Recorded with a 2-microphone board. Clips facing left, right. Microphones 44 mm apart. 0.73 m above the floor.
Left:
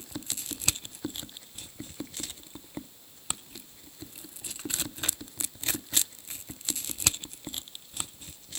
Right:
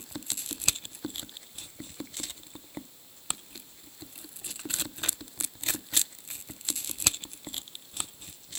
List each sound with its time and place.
Only background noise.